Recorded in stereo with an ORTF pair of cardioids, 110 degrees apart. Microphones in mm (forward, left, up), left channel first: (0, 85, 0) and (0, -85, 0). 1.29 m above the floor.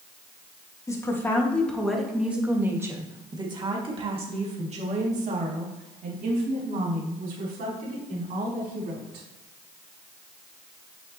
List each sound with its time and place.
0.9 s a woman speaking: 20° left, 1.8 m; by 9.2 s 65° right, 4.5 m